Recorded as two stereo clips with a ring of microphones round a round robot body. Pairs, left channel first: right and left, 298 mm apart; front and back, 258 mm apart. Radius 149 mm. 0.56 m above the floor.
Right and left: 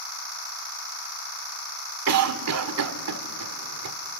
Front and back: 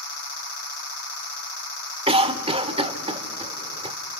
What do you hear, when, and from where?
2.1 s a cough: 115° left, 1.9 m